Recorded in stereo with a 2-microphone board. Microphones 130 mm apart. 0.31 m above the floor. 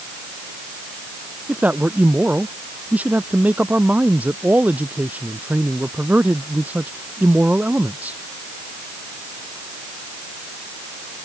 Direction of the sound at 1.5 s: 10° right (ahead or behind).